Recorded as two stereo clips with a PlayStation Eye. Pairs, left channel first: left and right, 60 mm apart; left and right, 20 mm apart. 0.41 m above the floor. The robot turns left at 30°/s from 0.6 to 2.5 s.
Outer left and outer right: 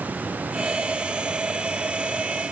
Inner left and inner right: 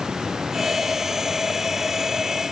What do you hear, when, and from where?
Only background noise.